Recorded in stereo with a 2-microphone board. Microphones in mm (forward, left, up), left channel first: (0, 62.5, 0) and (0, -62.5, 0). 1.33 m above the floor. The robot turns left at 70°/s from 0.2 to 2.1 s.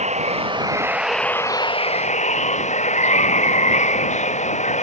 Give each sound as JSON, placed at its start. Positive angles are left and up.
{"t": 0.0, "sound": "running water", "azimuth_deg": -115}